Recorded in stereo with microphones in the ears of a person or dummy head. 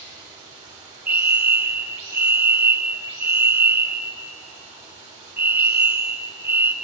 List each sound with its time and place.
0.0 s running water: 45° right (ahead or behind), 1.8 m
1.1 s a fire alarm: 10° right (ahead or behind), 0.6 m